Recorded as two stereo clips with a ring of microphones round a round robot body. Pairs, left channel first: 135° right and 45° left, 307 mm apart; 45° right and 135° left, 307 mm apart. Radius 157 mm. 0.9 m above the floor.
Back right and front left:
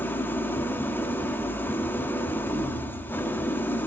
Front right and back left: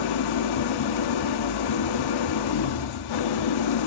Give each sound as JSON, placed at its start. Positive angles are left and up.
{"t": 0.0, "sound": "an engine running", "azimuth_deg": -50, "distance_m": 1.2}